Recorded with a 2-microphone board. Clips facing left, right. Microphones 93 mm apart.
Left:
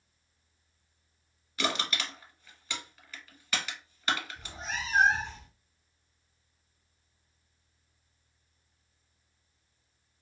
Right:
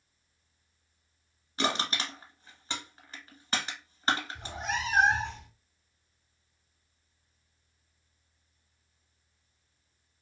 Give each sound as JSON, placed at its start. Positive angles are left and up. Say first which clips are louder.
{"t": 1.6, "sound": "crushing", "louder": "right 2 dB", "side_deg": -35, "distance_m": 0.8}
{"t": 4.3, "sound": "a cat meowing", "louder": "right 5 dB", "side_deg": -65, "distance_m": 0.6}